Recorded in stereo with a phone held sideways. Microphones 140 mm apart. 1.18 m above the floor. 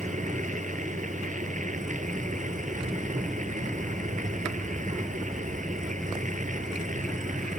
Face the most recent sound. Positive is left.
turn(degrees=-65)  # may be behind; listen again after turning